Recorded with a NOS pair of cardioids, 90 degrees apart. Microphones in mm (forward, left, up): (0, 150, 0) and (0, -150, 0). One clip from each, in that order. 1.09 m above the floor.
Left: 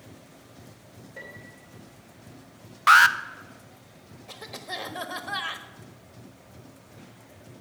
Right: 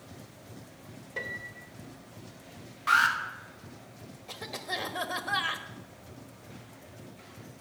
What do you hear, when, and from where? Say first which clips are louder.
1.2 s a piano: right 7 dB; 60° right, 1.9 m
2.9 s an alarm: left 8 dB; 60° left, 0.7 m
4.3 s a cough: right 1 dB; straight ahead, 1.2 m